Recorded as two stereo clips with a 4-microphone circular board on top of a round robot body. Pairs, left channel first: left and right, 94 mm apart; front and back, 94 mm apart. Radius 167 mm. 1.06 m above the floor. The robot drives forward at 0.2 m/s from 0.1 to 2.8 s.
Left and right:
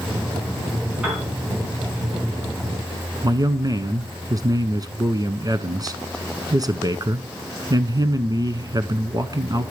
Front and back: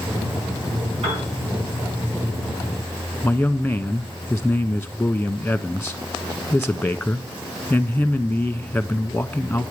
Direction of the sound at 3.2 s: 75° right.